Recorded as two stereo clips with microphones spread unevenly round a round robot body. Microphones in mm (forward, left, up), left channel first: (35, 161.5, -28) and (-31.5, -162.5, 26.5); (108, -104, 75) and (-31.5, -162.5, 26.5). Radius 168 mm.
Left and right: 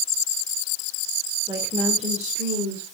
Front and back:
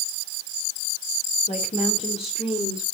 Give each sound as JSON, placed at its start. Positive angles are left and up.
{"t": 1.5, "sound": "a woman speaking", "azimuth_deg": -20, "distance_m": 3.0}